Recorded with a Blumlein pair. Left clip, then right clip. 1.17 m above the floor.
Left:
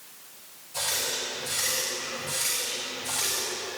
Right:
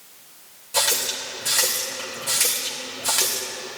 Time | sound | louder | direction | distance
0.7 | a running tap | right 6 dB | 55° right | 2.5 m